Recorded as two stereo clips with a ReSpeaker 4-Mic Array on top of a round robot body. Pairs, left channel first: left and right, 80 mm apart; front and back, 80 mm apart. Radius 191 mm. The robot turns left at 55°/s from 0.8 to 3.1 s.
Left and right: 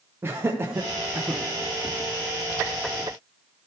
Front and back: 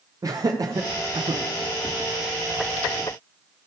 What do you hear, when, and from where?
0.2 s laughter: 145° right, 0.8 m; by 1.4 s straight behind, 0.8 m